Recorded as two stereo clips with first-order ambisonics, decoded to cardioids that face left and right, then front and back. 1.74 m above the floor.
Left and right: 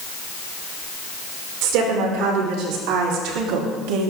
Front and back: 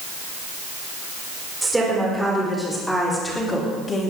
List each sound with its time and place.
1.6 s a woman speaking: 100° right, 5.5 m; by 4.1 s 65° right, 3 m